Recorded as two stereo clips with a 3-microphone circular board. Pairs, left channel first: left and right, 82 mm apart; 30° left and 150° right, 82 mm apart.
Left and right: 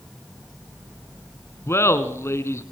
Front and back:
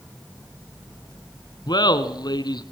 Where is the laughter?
40° left, 1.9 m.